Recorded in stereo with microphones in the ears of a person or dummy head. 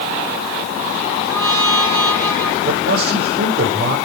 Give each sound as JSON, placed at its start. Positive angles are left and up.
{"t": 1.3, "sound": "a trumpet", "side_deg": -25, "distance_m": 9.5}
{"t": 2.6, "sound": "a man speaking", "side_deg": -60, "distance_m": 7.5}